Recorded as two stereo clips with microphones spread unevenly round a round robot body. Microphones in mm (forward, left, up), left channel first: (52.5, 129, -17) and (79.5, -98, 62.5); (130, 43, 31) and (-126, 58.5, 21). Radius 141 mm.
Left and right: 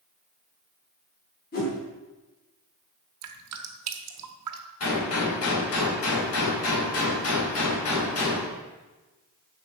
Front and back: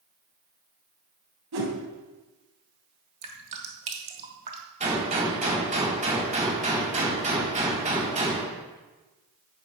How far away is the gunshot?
About 4.5 m.